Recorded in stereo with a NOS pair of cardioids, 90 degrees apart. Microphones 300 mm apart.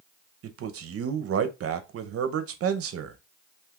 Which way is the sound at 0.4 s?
50° right.